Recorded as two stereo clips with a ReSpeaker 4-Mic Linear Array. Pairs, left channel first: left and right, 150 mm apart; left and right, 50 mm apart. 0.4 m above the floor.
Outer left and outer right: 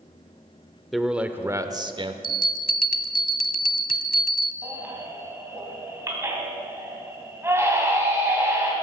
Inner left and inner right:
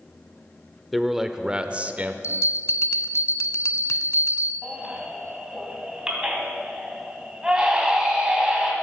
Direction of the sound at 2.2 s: 70° left (ahead or behind).